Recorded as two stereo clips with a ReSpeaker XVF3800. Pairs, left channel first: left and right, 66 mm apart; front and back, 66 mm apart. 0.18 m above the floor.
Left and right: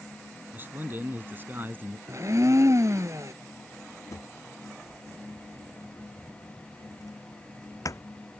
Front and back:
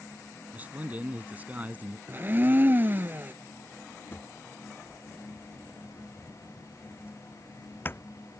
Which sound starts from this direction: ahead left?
A drawer, at 4.1 s.